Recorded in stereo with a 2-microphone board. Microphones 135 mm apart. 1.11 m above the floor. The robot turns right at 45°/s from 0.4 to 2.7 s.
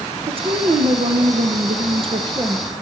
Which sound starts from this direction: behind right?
A woman speaking, at 0.3 s.